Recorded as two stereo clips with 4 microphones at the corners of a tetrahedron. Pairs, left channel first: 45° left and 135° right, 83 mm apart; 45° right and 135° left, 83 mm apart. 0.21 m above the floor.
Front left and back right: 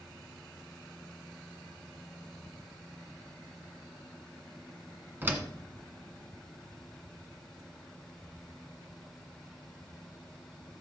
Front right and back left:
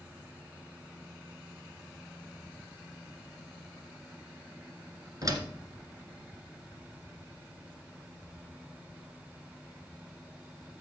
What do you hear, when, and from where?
5.2 s a door slam: 165° left, 1.8 m